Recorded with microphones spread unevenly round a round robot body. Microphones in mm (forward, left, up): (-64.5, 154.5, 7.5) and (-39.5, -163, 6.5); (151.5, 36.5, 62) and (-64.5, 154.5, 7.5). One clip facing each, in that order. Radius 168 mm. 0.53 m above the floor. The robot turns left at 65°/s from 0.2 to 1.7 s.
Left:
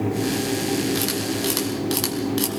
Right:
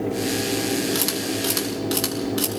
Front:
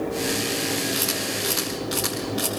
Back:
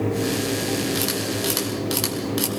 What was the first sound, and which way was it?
A camera shutter, 145° right.